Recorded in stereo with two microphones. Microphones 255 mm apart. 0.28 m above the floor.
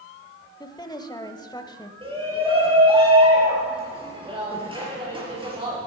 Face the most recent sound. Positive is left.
turn(degrees=-20)  # may be behind; listen again after turning